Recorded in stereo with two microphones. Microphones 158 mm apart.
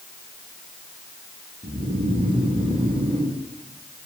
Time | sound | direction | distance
1.6 | snoring | 35° right (ahead or behind) | 2 m